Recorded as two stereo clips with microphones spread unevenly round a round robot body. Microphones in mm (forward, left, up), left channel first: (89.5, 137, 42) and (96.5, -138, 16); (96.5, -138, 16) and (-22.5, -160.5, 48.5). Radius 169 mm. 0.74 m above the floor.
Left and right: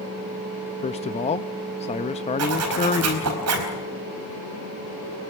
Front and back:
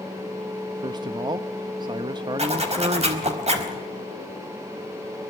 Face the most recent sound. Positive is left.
turn(degrees=-135)